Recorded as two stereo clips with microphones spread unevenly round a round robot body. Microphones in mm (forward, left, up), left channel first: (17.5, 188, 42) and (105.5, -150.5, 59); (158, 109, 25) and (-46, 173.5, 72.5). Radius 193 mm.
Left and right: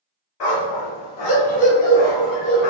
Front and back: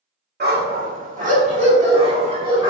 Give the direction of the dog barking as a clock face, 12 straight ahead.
8 o'clock.